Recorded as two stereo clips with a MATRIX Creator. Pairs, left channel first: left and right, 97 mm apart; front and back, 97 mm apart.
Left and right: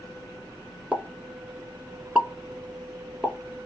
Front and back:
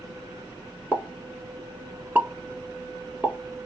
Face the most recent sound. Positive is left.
turn(degrees=-145)